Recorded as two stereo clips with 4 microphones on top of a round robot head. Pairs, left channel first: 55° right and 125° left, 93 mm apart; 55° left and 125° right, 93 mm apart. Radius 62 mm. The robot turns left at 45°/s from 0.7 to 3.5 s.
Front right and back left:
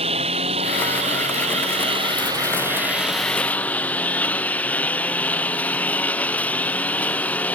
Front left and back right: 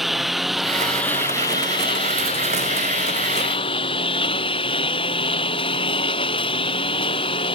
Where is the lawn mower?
145° left; by 7.5 s 20° left.